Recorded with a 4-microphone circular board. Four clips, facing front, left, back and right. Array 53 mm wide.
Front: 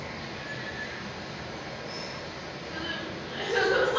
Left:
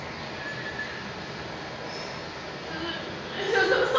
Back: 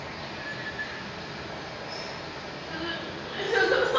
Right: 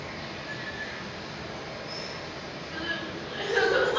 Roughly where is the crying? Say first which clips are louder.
Right 1 dB, back 1 dB; behind left.